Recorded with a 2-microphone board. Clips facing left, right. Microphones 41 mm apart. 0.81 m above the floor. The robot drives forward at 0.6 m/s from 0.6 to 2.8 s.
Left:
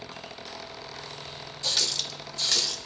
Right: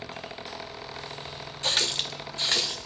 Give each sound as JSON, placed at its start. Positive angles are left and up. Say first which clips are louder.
{"t": 1.6, "sound": "a running tap", "louder": "right 3 dB", "side_deg": -45, "distance_m": 0.8}